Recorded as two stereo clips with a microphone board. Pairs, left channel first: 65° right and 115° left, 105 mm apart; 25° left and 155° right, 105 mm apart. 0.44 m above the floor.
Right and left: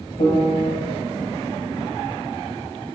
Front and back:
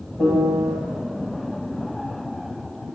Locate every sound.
0.2 s a piano: 70° right, 1.9 m